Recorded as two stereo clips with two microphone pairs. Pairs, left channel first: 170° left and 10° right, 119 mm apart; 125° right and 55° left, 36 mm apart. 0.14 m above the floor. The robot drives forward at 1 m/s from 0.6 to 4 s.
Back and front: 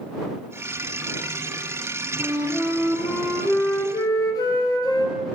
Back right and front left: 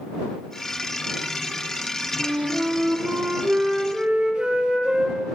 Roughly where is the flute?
Ahead left.